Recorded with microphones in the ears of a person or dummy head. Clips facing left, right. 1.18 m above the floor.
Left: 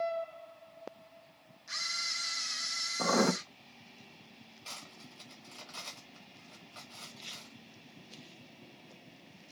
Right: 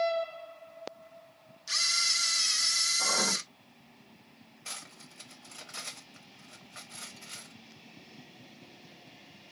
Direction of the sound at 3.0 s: 55° left (ahead or behind).